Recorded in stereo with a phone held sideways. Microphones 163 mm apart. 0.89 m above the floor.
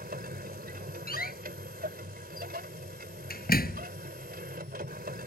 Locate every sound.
0.0 s a machine running: 80° right
1.1 s a door slam: 75° left (ahead or behind)